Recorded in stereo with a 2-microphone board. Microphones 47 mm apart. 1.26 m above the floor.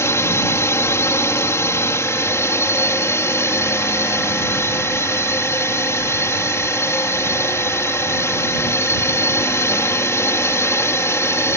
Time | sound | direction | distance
0.0 | a drone | 70° left (ahead or behind) | ?